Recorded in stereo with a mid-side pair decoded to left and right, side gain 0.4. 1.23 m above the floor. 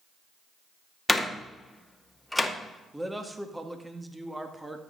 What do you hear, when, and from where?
1.1 s a door slam: 10° left, 1.9 m
2.9 s a man speaking: 10° right, 2 m